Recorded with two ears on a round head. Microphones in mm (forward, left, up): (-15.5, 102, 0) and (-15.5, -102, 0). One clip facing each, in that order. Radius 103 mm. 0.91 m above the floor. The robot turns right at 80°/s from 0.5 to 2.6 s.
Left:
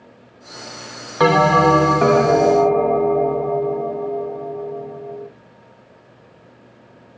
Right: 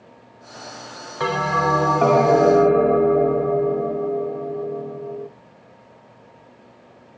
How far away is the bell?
About 0.5 m.